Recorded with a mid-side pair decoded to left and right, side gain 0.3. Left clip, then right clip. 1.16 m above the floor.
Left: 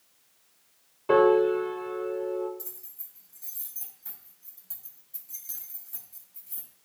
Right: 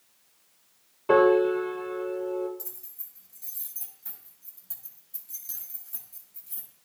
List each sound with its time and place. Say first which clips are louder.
1.1 s a piano: even; 15° right, 2.5 m
2.6 s keys jangling: even; 10° right, 4.5 m